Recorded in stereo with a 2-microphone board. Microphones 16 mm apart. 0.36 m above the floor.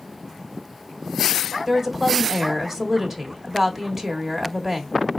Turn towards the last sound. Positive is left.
turn(degrees=-20)  # may be behind; listen again after turning